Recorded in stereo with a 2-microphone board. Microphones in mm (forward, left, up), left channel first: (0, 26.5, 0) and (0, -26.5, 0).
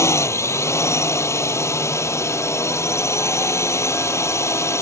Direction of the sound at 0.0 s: 60° left (ahead or behind).